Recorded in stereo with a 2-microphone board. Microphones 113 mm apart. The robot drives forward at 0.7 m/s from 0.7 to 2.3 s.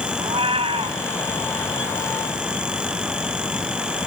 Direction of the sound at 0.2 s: 55° right (ahead or behind).